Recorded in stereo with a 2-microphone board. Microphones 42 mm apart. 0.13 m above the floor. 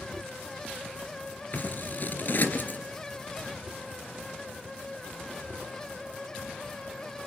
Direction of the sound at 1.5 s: 45° left (ahead or behind).